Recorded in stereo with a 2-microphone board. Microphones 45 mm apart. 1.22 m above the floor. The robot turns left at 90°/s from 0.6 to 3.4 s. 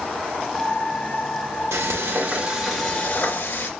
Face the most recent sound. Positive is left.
turn(degrees=115)